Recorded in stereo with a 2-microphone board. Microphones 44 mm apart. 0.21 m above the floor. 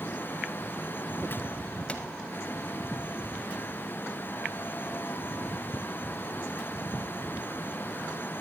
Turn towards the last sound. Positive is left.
turn(degrees=20)  # may be behind; listen again after turning